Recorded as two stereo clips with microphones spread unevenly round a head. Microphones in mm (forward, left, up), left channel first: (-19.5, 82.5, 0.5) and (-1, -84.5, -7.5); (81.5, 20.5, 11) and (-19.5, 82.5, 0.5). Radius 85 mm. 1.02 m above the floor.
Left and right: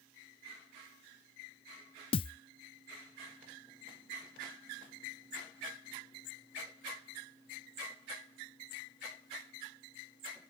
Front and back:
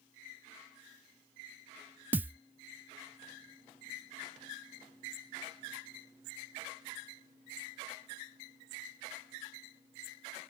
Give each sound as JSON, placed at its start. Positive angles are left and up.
{"t": 2.1, "sound": "a thud", "azimuth_deg": 75}